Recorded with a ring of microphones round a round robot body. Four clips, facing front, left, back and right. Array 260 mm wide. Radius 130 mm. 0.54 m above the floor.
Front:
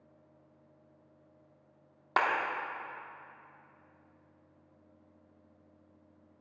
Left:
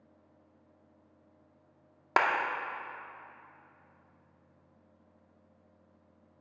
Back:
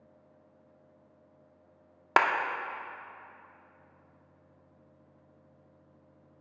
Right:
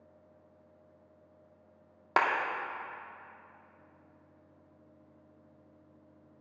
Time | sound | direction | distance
2.2 | a clap | 175° left | 0.9 m